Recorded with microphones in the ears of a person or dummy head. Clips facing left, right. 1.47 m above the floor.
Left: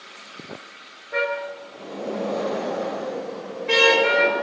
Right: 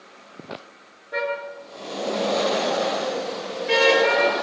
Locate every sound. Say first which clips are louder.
1.1 s a car horn: left 1 dB; 5° right (ahead or behind), 8 m